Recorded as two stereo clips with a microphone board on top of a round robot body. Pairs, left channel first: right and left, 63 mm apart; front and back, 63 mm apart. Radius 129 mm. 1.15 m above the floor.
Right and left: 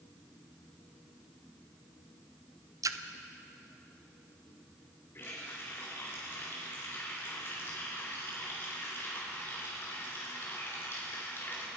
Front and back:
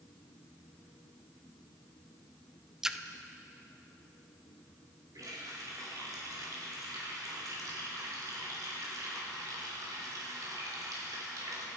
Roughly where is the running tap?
Behind right.